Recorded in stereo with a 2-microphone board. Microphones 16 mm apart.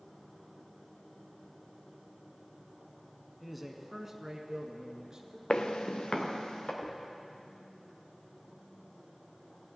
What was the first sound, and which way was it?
A man speaking, centre (ahead or behind).